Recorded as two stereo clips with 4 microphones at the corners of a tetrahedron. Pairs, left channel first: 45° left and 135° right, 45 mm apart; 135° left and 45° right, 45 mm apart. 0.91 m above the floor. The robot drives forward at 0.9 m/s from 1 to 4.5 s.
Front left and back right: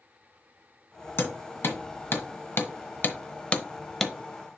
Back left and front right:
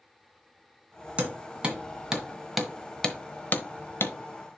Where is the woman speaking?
I don't hear a woman speaking.